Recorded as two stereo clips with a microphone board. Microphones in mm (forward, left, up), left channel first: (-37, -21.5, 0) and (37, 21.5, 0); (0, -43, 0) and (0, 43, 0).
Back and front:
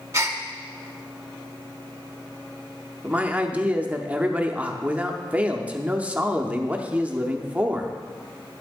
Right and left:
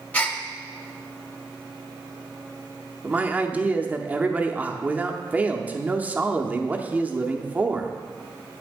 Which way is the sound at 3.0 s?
65° left.